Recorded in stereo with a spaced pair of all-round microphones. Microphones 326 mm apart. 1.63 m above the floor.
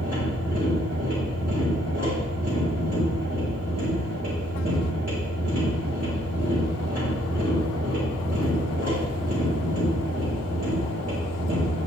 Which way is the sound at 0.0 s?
50° right (ahead or behind).